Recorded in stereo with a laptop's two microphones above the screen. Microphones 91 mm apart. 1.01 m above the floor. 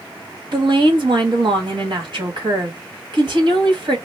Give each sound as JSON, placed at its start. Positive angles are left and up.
{"t": 0.5, "sound": "a woman speaking", "side_deg": -55, "distance_m": 1.4}